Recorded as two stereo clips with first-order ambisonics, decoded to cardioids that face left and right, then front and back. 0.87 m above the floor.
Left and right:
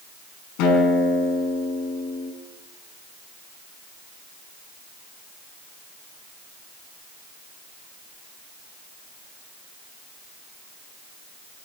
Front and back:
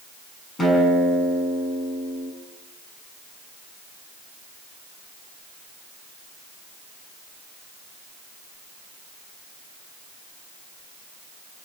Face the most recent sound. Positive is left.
turn(degrees=75)